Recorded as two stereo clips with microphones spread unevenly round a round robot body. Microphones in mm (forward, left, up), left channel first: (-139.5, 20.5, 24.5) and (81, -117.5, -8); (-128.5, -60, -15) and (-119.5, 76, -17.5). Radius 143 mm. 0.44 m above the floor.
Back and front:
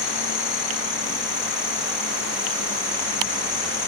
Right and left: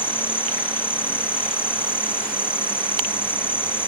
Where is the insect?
170° right.